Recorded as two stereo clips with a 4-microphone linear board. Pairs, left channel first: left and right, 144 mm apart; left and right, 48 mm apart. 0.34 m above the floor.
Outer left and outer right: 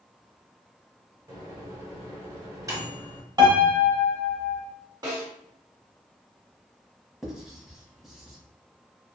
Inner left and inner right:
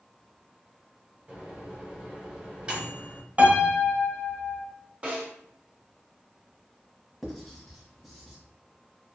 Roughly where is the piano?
Right.